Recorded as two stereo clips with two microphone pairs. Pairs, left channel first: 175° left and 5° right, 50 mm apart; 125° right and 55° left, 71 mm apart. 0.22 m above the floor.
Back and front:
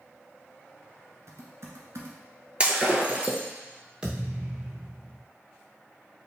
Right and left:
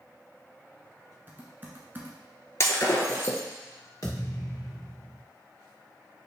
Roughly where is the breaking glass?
Right.